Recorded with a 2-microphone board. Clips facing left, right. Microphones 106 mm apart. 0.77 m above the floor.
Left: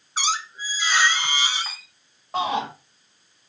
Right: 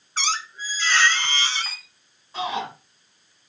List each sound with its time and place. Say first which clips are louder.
0.2 s a squeak: left 1 dB; 15° left (ahead or behind), 1.1 m
2.3 s a shout: left 3 dB; 80° left, 4 m